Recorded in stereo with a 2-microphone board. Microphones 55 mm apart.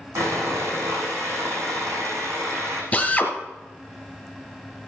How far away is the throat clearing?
I don't hear throat clearing.